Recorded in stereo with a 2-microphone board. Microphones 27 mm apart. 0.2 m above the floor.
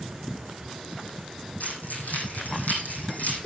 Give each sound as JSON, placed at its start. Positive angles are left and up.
{"t": 1.6, "sound": "keys jangling", "side_deg": 80, "distance_m": 6.5}